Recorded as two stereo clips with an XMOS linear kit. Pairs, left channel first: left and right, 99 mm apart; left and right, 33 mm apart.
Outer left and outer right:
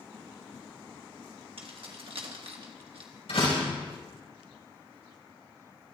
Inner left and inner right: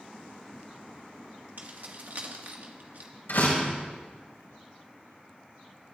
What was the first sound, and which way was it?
Keys jangling, 65° right (ahead or behind).